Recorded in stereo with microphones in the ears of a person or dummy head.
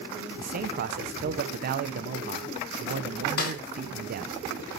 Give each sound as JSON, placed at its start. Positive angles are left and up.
{"t": 0.4, "sound": "a man speaking", "side_deg": -45, "distance_m": 0.7}
{"t": 3.4, "sound": "a snare drum", "side_deg": 50, "distance_m": 0.9}